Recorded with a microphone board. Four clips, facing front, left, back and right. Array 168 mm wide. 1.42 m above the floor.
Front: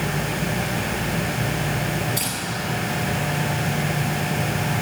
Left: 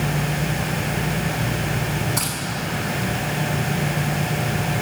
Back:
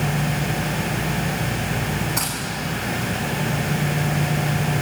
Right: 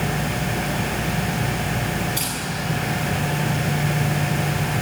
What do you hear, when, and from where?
2.2 s keys jangling: 140° left, 9.5 m